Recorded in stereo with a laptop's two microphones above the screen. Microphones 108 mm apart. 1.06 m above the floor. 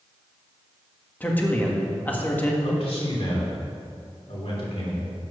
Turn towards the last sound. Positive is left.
turn(degrees=65)  # may be behind; listen again after turning